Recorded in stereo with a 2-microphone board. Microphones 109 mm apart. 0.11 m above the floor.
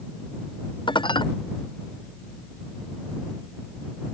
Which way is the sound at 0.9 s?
45° left (ahead or behind).